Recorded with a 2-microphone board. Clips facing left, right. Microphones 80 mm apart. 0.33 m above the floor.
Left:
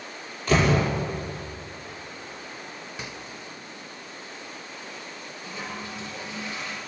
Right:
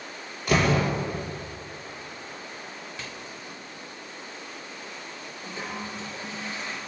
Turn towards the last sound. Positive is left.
turn(degrees=-40)  # may be behind; listen again after turning